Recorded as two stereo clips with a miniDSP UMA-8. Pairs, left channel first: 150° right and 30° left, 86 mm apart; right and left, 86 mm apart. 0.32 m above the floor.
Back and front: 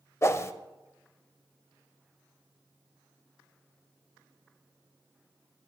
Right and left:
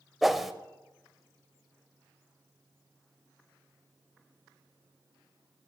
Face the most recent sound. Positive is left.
turn(degrees=180)